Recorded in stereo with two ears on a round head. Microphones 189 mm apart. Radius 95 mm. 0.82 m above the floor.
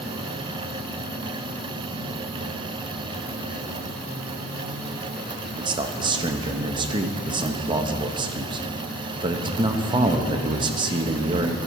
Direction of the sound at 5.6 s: 20° right (ahead or behind).